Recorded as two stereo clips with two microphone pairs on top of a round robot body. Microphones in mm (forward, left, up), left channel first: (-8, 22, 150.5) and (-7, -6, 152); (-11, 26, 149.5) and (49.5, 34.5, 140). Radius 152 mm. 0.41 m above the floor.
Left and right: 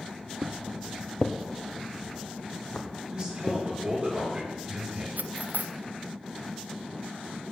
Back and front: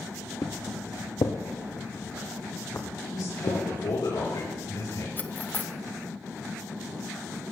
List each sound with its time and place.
0.4 s footsteps: 135° right, 0.6 m; by 3.6 s 130° left, 2 m
3.1 s a man speaking: 160° right, 7 m
5.2 s cutlery clinking: 110° right, 0.9 m